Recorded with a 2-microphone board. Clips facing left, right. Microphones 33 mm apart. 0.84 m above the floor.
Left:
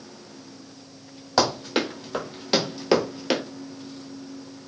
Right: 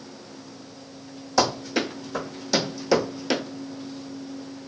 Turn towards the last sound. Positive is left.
turn(degrees=20)  # may be behind; listen again after turning